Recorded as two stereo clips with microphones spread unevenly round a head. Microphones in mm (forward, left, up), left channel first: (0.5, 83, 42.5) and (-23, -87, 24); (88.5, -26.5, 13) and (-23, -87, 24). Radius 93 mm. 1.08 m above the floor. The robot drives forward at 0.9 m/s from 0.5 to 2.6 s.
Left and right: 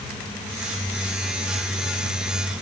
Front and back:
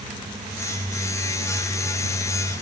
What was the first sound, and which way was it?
Only background noise.